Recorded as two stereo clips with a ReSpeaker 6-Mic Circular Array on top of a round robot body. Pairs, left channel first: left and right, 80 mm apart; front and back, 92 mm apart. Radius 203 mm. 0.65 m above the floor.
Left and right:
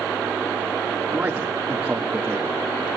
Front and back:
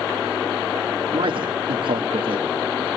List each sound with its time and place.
1.1 s a man speaking: 165° right, 1.7 m